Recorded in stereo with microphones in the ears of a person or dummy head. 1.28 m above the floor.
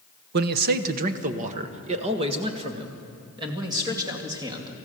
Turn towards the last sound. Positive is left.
turn(degrees=-20)  # may be behind; listen again after turning